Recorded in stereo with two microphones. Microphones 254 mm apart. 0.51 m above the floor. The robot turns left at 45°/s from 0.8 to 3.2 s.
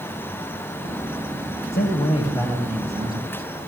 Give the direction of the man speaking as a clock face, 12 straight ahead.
11 o'clock.